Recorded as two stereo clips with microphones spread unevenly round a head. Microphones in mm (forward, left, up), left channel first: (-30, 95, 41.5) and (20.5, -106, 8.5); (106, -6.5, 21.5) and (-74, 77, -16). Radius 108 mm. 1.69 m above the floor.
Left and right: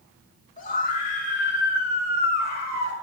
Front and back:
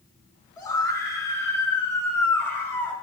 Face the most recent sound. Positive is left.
turn(degrees=55)